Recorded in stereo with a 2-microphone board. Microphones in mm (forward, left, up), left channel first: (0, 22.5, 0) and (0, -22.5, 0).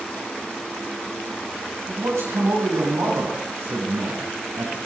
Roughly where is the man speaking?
Right.